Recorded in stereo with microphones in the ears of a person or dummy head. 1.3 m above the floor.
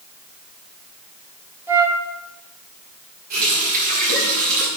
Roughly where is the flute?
Centre.